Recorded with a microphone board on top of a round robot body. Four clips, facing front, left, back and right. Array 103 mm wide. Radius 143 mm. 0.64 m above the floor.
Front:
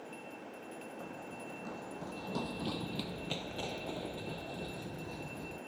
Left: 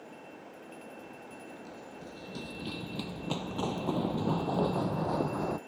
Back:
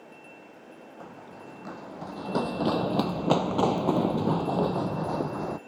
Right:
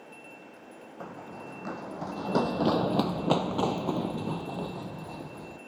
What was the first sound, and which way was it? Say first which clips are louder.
Running footsteps: right 5 dB, back 1 dB; 100° right.